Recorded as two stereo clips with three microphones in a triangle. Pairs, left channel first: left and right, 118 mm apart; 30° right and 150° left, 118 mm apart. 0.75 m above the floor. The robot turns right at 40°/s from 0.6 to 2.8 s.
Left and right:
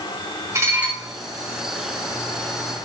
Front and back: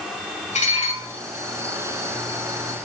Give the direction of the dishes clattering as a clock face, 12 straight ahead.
1 o'clock.